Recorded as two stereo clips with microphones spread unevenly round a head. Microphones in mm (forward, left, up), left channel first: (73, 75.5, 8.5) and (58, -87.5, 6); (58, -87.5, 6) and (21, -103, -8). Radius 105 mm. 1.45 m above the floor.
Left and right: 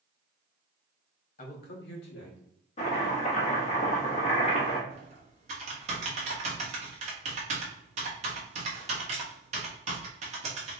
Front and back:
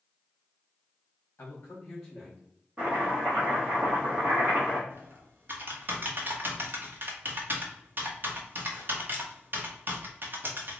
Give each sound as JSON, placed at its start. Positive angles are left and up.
{"t": 1.4, "sound": "a man speaking", "azimuth_deg": 55, "distance_m": 0.9}
{"t": 2.8, "sound": "chopping", "azimuth_deg": 115, "distance_m": 1.0}
{"t": 4.9, "sound": "typing on a keyboard", "azimuth_deg": -120, "distance_m": 0.9}